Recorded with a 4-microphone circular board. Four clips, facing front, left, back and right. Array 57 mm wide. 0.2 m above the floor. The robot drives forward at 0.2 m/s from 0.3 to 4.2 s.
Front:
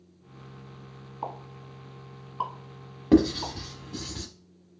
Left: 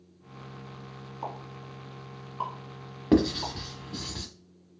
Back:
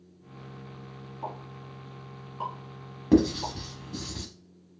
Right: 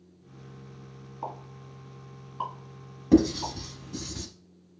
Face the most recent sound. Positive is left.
turn(degrees=105)